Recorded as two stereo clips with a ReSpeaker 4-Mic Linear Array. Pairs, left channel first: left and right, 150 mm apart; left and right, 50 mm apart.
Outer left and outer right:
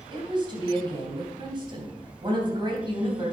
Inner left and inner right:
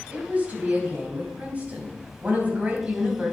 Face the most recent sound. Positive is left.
turn(degrees=-30)  # may be behind; listen again after turning